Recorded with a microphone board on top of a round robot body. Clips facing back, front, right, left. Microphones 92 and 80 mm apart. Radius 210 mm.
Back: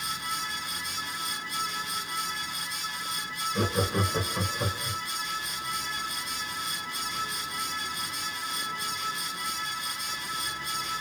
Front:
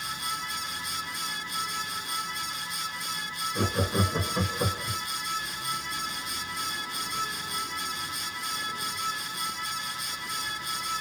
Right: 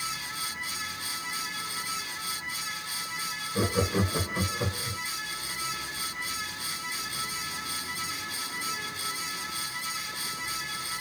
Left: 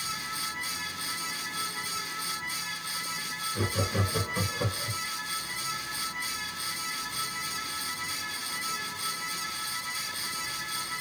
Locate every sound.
3.5 s laughter: 100° right, 1.2 m; by 5.0 s 30° left, 1.3 m